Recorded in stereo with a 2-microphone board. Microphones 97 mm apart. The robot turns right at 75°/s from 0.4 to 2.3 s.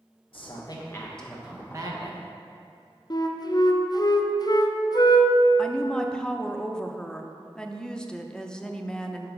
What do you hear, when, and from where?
0.3 s a man speaking: 115° left, 1.3 m; by 2.2 s 115° right, 1.3 m
3.1 s a flute: 45° left (ahead or behind), 0.5 m
5.6 s a woman speaking: 10° left (ahead or behind), 0.6 m